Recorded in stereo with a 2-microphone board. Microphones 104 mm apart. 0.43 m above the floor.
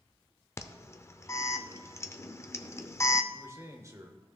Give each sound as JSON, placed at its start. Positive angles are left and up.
{"t": 0.6, "sound": "an alarm", "side_deg": 25, "distance_m": 0.5}
{"t": 3.3, "sound": "a man speaking", "side_deg": -30, "distance_m": 1.2}